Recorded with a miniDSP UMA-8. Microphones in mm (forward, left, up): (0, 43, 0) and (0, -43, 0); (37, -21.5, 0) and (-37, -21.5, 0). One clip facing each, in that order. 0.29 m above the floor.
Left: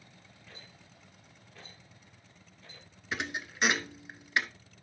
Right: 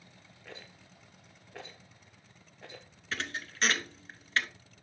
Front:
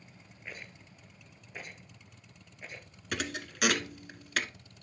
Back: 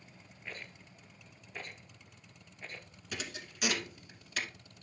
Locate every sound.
0.5 s a rattle: 75° right, 1.2 m
3.1 s a thud: 15° left, 0.7 m